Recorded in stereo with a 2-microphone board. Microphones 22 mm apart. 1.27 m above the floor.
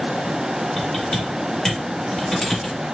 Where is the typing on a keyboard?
25° left (ahead or behind), 1.6 m.